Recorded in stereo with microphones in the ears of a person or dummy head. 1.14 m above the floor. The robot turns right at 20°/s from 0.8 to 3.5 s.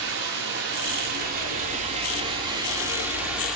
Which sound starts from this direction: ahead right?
Running water, at 0.0 s.